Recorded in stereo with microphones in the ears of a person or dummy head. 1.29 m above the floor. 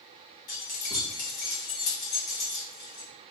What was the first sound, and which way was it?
Keys jangling, 35° left (ahead or behind).